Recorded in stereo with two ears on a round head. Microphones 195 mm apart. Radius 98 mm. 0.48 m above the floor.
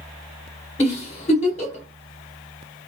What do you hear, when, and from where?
0.8 s a giggle: 30° left (ahead or behind), 1.1 m